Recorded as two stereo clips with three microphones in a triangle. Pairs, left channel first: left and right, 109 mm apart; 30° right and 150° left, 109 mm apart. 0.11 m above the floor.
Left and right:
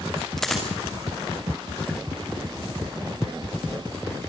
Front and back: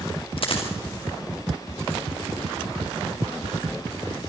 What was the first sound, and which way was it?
A dropped coin, 5° left.